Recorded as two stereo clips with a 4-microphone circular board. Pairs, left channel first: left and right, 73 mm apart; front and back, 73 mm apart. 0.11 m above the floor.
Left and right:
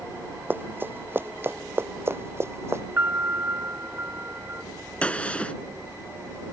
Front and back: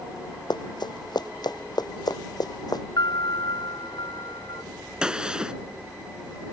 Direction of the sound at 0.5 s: 25° right.